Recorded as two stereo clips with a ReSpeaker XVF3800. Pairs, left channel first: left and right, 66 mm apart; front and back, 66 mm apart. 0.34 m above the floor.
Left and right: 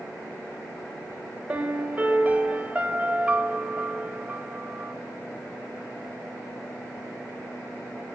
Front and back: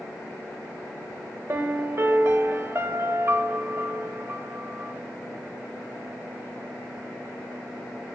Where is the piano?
150° right, 0.5 m.